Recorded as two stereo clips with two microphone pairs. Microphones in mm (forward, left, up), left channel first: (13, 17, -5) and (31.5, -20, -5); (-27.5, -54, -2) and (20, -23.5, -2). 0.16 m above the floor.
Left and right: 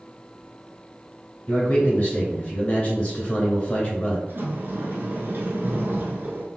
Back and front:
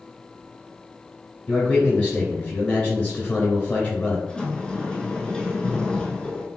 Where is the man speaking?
170° left, 1.9 m.